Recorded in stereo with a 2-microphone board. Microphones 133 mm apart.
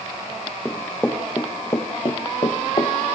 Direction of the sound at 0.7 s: 10° left (ahead or behind).